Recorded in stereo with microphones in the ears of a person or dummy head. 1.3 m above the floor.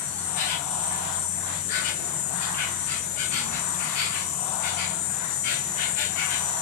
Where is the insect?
50° left (ahead or behind), 1.1 m.